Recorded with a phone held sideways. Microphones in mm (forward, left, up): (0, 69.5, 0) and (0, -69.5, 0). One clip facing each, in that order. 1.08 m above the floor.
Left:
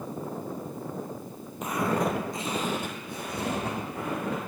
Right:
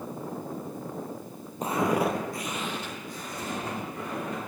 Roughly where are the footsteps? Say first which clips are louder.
Right 2 dB; right.